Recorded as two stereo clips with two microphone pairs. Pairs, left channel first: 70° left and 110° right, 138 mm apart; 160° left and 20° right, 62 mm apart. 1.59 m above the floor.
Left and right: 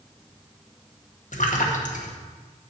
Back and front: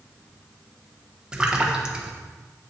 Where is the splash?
55° left, 1.2 m.